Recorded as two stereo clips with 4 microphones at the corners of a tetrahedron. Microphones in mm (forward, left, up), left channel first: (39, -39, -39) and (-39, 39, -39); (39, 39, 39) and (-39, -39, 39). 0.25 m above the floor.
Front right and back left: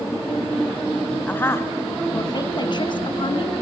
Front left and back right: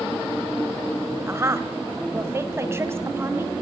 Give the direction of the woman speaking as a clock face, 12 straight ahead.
3 o'clock.